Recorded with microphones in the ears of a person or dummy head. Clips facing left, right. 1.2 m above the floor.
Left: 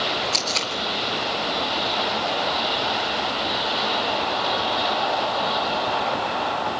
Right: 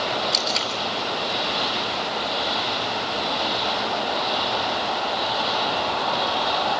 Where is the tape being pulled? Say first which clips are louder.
Right 1 dB; 10° right (ahead or behind), 3 m.